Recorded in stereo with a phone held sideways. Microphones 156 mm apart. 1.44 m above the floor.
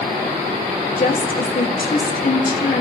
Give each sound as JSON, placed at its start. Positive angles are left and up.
{"t": 1.0, "sound": "a woman speaking", "side_deg": 65, "distance_m": 2.5}